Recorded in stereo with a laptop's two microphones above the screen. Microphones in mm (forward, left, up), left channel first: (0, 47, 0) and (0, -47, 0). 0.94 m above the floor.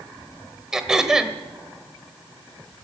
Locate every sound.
0.7 s throat clearing: 5° right (ahead or behind), 1.3 m